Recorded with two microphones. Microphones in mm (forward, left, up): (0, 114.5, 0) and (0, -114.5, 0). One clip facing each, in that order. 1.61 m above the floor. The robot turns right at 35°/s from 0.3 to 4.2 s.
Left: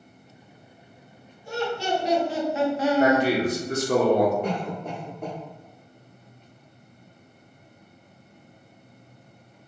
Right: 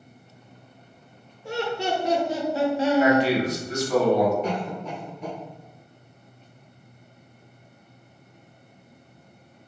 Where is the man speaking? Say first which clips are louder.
Left 1 dB; 55° left, 0.8 m; by 4.3 s 95° left, 0.8 m.